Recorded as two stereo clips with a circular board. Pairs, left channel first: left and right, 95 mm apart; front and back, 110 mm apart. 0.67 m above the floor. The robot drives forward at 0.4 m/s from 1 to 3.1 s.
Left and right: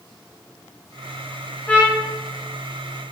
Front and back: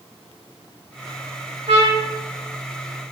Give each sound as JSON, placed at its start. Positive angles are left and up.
{"t": 1.7, "sound": "a trumpet", "azimuth_deg": 160, "distance_m": 0.6}